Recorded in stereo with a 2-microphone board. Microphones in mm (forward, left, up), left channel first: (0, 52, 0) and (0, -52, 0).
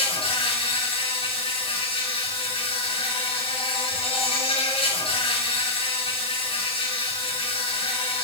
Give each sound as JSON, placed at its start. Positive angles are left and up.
{"t": 0.0, "sound": "an insect", "side_deg": 65, "distance_m": 6.5}